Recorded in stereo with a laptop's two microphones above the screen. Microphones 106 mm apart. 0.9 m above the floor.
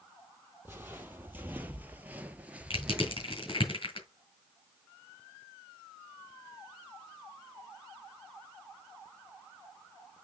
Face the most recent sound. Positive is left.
turn(degrees=55)  # may be behind; listen again after turning